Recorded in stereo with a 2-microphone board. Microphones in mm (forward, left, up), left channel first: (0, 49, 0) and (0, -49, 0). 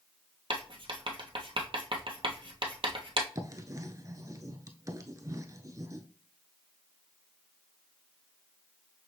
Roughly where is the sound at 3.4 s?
Right.